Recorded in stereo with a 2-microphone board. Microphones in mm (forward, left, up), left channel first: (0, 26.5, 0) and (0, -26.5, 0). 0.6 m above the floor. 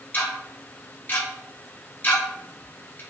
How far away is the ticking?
About 0.9 m.